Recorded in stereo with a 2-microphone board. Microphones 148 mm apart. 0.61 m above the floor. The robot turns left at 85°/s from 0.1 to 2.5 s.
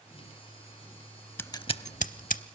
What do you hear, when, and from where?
1.4 s scissors: 15° left (ahead or behind), 0.7 m; by 2.4 s 65° left (ahead or behind), 0.7 m